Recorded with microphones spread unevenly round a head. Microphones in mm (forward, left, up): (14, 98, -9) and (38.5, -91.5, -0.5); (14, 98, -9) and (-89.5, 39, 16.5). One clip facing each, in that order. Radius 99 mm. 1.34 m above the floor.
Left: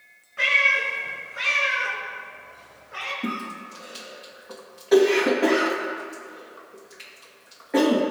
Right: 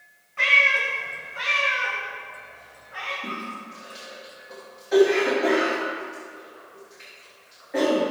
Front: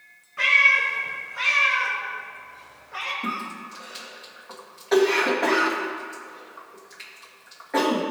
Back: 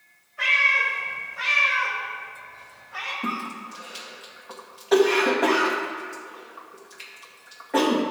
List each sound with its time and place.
0.4 s a cat meowing: 15° left, 3 m; by 3.1 s 65° left, 4 m
3.2 s a cough: 130° left, 2 m